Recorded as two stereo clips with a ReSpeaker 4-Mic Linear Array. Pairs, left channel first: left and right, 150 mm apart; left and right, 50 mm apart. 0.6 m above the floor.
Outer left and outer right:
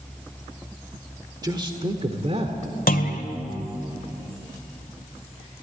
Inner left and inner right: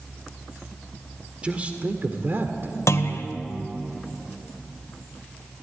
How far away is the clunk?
About 1.7 m.